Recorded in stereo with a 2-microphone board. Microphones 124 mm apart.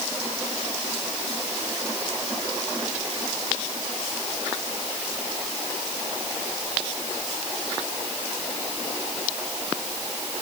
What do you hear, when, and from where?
Only background noise.